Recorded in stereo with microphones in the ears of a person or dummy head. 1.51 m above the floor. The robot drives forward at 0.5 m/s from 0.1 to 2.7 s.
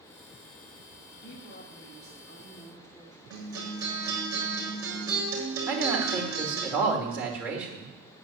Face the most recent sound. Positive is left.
turn(degrees=-10)  # may be behind; listen again after turning